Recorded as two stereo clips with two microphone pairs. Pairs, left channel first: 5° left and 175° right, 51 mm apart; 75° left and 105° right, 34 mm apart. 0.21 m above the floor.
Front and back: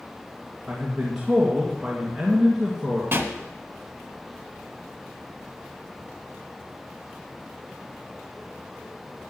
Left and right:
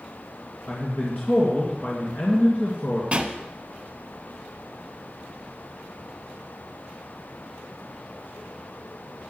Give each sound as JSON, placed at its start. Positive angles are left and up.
{"t": 0.7, "sound": "a man speaking", "azimuth_deg": 100, "distance_m": 2.0}
{"t": 3.1, "sound": "a pop", "azimuth_deg": -150, "distance_m": 1.1}